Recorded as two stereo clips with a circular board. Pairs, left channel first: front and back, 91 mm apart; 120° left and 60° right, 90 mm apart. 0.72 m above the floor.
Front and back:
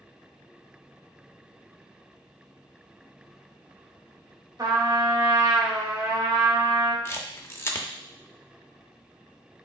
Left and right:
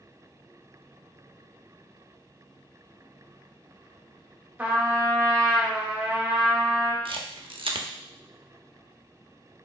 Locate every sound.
4.6 s a trumpet: 135° right, 1.0 m
7.0 s a camera shutter: 60° right, 0.6 m